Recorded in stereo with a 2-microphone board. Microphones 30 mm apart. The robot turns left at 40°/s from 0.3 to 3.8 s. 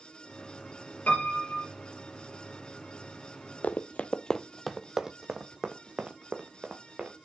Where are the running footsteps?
65° left (ahead or behind), 0.6 m; by 7.2 s 40° right (ahead or behind), 1.9 m.